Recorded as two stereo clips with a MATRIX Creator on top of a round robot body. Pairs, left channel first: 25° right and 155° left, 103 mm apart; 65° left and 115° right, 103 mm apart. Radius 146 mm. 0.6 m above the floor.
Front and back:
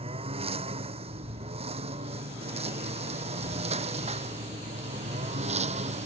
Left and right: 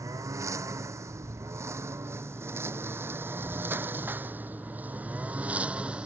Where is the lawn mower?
175° right; by 6.1 s 165° left.